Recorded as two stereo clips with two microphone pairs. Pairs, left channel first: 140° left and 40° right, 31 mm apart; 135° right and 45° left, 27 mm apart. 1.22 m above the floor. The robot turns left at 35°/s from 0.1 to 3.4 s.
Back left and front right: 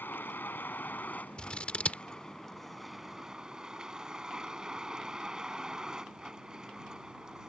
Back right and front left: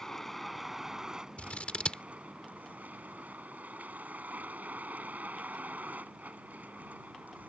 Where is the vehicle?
145° left; by 7.5 s 30° left.